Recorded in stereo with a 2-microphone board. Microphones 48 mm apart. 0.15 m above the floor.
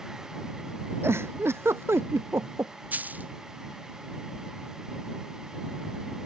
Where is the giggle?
60° right (ahead or behind).